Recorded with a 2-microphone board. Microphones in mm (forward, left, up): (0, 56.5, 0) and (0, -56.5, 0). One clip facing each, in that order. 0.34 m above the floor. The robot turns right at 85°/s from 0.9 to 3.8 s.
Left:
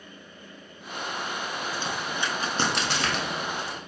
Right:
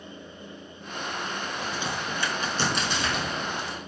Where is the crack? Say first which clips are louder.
Right 1 dB; 30° right (ahead or behind), 0.6 m; by 3.9 s 25° left (ahead or behind), 0.6 m.